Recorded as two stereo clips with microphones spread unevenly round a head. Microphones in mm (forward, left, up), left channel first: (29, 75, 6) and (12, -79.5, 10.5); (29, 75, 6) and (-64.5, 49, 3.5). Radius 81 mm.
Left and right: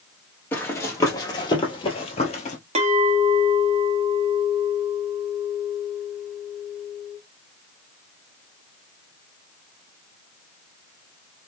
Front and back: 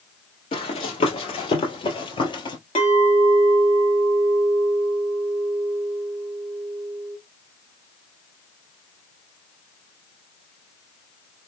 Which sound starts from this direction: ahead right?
A clink, at 2.8 s.